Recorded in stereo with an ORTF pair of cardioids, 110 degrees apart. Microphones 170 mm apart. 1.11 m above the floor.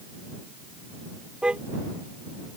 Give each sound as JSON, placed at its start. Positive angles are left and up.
{"t": 1.4, "sound": "a car horn", "azimuth_deg": -5}